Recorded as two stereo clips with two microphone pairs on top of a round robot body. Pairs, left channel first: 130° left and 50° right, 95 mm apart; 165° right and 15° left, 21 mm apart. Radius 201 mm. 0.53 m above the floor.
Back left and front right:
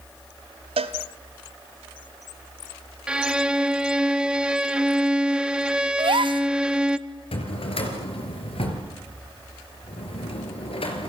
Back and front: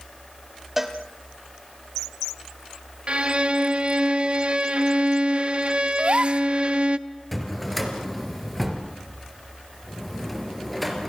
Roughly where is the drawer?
Left.